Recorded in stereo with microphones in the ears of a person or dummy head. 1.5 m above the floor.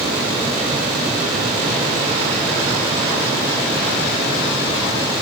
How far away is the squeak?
No squeak in this recording.